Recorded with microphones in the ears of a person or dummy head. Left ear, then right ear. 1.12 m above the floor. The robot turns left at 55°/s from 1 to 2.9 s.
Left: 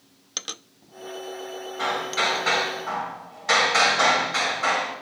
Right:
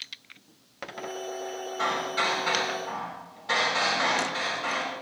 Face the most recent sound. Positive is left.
turn(degrees=115)